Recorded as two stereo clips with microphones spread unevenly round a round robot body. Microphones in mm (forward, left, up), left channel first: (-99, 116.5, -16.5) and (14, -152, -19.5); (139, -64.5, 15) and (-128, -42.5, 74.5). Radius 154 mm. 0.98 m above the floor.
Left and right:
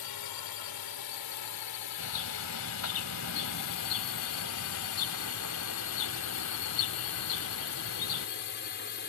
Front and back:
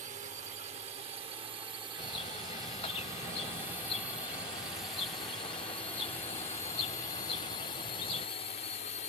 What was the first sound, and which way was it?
A drone, 105° left.